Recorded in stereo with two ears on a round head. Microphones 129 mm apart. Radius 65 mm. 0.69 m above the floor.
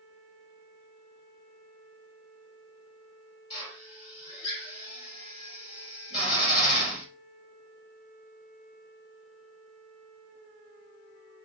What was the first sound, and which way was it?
A drill, 35° left (ahead or behind).